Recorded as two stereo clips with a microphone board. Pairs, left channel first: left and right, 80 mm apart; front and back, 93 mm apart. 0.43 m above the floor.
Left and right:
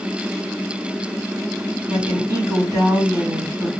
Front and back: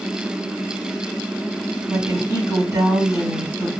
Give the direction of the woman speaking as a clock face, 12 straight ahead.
4 o'clock.